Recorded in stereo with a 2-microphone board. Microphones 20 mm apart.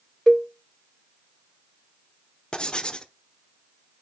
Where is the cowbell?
20° left (ahead or behind), 0.6 m.